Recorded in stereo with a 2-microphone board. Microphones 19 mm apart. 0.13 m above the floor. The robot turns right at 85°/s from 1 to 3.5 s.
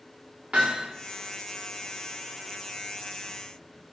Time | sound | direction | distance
0.5 | hammering | 65° right (ahead or behind) | 7 m